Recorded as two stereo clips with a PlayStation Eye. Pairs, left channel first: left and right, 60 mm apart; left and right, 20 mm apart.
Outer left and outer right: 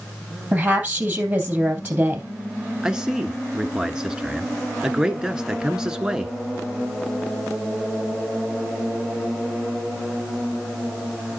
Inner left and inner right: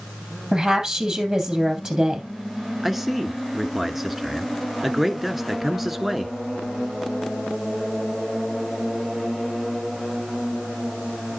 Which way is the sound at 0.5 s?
20° right (ahead or behind).